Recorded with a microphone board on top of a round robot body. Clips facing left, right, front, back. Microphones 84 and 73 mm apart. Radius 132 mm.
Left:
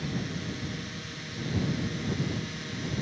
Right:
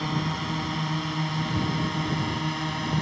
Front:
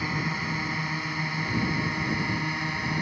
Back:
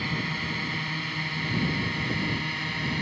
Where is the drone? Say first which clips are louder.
Right 6 dB, front 1 dB; 70° right.